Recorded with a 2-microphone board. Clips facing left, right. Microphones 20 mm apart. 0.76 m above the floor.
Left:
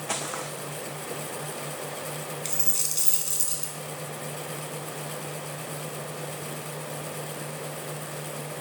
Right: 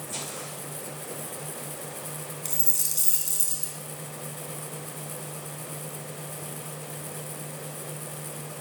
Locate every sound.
0.1 s footsteps: 80° left, 3.5 m
2.5 s a dropped coin: 20° left (ahead or behind), 3.5 m